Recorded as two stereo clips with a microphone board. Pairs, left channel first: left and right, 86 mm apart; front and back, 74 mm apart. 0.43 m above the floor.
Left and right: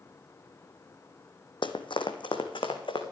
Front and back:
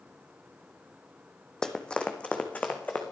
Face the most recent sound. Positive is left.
turn(degrees=70)